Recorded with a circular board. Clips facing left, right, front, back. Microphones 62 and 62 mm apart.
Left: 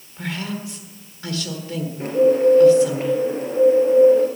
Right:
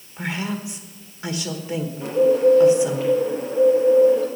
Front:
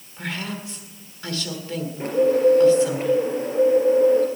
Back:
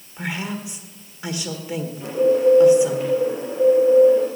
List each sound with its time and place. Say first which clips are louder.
0.2 s a woman speaking: right 1 dB, back 2 dB; 130° right, 1.4 m
2.0 s a bird: left 1 dB, even; 45° left, 2.5 m